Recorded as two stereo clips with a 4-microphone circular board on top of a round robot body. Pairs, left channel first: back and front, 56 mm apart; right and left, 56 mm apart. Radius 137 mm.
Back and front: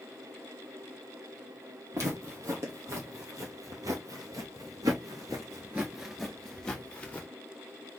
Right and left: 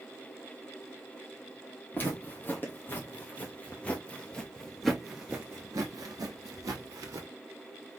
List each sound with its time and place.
1.9 s footsteps: 35° right, 2 m; by 7.3 s 115° left, 1.1 m